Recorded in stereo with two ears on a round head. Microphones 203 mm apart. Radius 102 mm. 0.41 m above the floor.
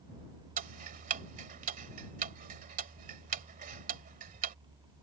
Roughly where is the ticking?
Right.